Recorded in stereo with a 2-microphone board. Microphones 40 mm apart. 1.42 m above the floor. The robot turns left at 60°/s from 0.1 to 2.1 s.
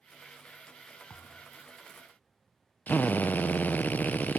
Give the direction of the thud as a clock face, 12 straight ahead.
8 o'clock.